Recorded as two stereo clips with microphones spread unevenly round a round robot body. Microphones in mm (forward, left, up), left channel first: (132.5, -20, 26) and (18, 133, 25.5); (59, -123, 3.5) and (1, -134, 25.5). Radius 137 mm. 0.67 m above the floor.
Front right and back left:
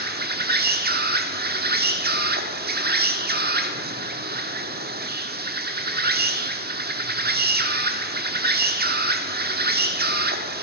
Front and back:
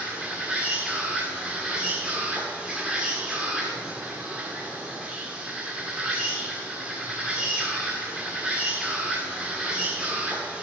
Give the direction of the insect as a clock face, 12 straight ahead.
9 o'clock.